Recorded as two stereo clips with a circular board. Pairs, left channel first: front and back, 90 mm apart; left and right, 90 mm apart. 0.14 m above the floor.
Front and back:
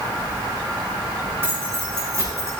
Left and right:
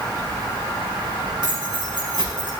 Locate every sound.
1.4 s keys jangling: 115° right, 4.5 m; by 2.5 s 125° right, 5.5 m